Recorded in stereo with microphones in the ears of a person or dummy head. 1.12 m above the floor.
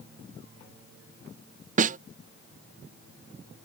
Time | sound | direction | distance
1.8 | a snare drum | 40° right (ahead or behind) | ?